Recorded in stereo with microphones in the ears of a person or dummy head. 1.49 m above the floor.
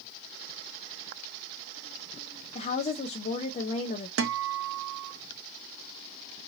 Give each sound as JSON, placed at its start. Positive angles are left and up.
{"t": 2.5, "sound": "a woman speaking", "side_deg": 40, "distance_m": 0.5}
{"t": 4.2, "sound": "a guitar", "side_deg": -85, "distance_m": 0.6}